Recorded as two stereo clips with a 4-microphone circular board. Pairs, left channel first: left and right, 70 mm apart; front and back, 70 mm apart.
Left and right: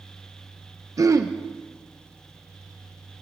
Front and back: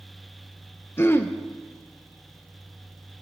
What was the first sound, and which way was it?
Throat clearing, 55° right.